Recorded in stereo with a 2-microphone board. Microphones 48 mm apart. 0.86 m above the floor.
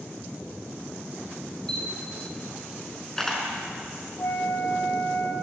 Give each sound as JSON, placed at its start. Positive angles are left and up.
{"t": 1.7, "sound": "a camera shutter", "side_deg": 10, "distance_m": 5.5}
{"t": 4.2, "sound": "a flute", "side_deg": 65, "distance_m": 4.0}